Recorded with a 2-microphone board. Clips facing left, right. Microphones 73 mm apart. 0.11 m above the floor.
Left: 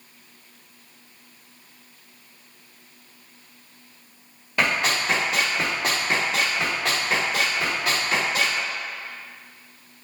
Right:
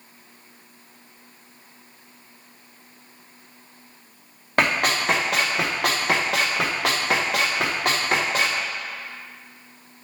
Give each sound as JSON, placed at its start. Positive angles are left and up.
{"t": 4.6, "sound": "running footsteps", "side_deg": -55, "distance_m": 1.6}